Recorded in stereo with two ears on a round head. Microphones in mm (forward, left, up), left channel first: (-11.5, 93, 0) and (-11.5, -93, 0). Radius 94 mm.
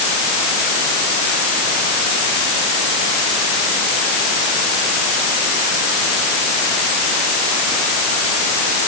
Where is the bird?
I don't hear a bird.